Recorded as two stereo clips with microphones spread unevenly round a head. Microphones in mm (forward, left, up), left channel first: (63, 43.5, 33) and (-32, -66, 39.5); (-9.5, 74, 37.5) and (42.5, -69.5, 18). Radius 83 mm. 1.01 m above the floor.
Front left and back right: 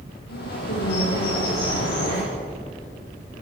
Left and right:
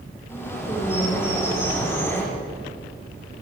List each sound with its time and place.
0.3 s a bird: 35° left, 7.5 m